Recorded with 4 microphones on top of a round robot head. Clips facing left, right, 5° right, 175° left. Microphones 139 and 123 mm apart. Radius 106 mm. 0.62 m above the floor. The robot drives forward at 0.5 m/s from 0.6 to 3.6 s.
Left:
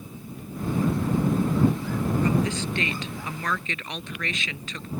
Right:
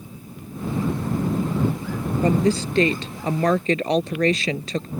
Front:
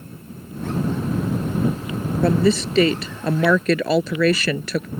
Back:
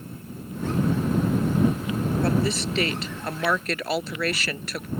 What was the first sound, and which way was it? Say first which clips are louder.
A woman speaking: right 5 dB, front 10 dB; 25° right.